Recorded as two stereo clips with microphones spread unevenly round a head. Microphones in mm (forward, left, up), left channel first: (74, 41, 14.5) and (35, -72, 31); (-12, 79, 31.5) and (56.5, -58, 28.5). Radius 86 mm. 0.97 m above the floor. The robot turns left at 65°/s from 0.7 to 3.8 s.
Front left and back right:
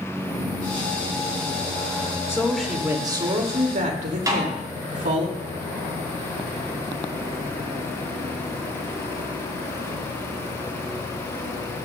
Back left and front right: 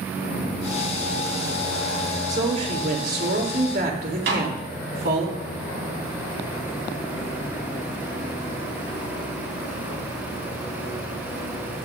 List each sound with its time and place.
2.3 s a woman speaking: 5° left, 3 m; by 5.3 s 95° right, 3 m
4.3 s a snare drum: 50° right, 4.5 m